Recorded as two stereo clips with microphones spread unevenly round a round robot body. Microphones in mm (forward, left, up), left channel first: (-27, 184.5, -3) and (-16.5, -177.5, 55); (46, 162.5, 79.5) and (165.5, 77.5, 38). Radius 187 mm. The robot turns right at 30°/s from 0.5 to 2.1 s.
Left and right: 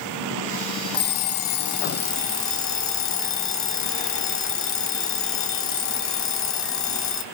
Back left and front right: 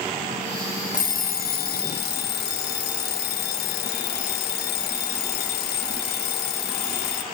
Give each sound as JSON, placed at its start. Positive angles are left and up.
{"t": 0.9, "sound": "an alarm clock", "azimuth_deg": 115, "distance_m": 1.5}